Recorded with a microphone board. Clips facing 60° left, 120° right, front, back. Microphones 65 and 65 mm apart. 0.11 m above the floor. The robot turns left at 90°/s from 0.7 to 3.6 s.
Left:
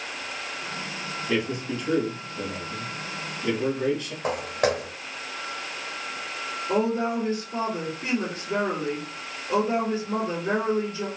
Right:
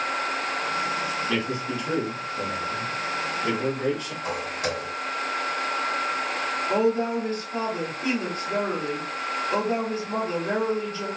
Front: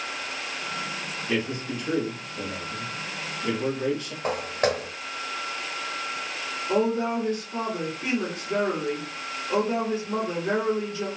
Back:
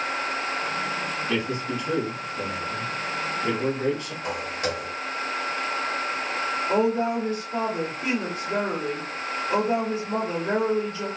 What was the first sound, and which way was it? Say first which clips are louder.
A man speaking: even, front 1 dB; 10° left.